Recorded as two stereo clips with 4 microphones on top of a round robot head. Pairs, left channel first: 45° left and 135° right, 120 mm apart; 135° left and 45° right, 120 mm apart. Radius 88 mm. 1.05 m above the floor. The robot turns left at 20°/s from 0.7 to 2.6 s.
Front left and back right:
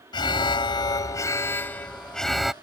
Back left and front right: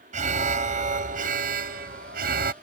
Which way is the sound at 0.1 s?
15° right.